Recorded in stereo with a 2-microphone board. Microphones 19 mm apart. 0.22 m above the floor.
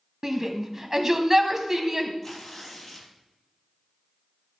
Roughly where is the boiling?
No boiling in this recording.